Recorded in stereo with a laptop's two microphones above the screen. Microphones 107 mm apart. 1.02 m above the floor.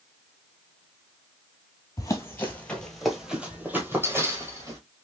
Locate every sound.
2.0 s running footsteps: 30° left (ahead or behind), 1.1 m; by 4.8 s 30° right (ahead or behind), 1.7 m